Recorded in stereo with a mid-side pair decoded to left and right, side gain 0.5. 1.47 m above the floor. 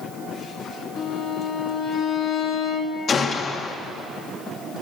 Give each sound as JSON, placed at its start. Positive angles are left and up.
{"t": 1.0, "sound": "a violin", "azimuth_deg": 60, "distance_m": 1.8}
{"t": 3.1, "sound": "a gunshot", "azimuth_deg": 45, "distance_m": 1.5}